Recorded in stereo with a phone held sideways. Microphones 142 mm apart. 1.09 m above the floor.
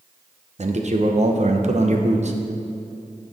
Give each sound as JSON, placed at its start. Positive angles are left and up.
{"t": 0.6, "sound": "a man speaking", "side_deg": -55, "distance_m": 0.9}